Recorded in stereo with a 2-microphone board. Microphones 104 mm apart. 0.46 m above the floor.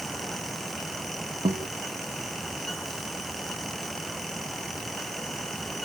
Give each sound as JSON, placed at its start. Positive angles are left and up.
{"t": 1.4, "sound": "a guitar", "side_deg": -85}